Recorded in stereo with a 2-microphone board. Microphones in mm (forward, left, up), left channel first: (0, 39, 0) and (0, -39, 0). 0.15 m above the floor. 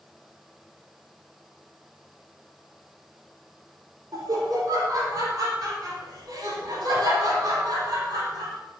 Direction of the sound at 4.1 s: 55° right (ahead or behind).